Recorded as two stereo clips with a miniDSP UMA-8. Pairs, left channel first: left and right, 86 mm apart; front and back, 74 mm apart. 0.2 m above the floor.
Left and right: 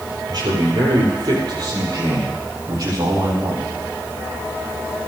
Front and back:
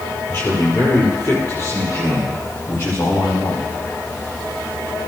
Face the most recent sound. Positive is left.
turn(degrees=-40)